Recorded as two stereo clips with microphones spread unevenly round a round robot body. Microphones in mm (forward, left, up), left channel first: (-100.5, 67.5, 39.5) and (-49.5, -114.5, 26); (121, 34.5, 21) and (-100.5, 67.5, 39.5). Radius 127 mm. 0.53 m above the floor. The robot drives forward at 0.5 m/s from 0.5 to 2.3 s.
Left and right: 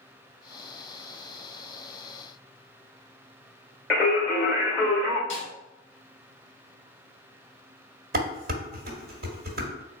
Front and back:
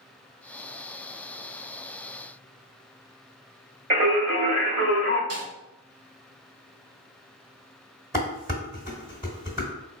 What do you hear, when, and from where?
3.9 s singing: 170° right, 1.8 m
5.3 s a snare drum: 165° left, 2.0 m
8.1 s dishes clattering: 105° right, 1.4 m